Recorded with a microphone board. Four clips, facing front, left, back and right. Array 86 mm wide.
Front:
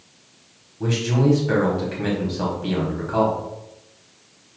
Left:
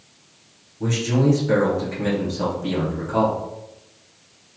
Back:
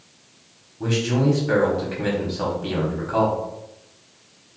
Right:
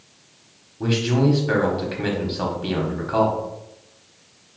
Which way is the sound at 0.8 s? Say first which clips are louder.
Right 1 dB, even; 90° right.